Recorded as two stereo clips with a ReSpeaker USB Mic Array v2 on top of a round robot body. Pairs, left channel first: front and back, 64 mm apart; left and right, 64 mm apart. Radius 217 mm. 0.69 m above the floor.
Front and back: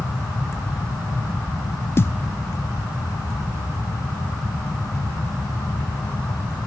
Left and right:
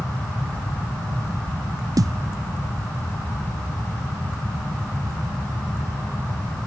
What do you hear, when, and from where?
2.0 s a thud: 55° right, 0.7 m